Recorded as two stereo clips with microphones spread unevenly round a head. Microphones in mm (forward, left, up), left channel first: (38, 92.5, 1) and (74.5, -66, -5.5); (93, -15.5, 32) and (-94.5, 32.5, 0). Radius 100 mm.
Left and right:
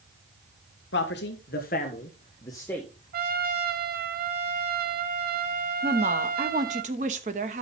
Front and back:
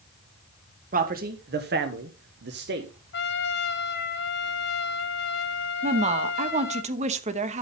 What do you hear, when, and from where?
0.9 s a man speaking: 125° left, 1.4 m; by 2.9 s 170° right, 1.2 m
3.1 s a trumpet: 50° right, 1.3 m
5.8 s a woman speaking: 135° right, 1.0 m